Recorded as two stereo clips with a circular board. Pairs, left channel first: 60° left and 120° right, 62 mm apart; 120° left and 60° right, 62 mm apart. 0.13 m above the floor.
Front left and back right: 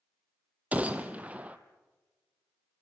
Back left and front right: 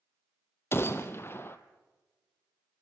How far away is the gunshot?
About 1.3 m.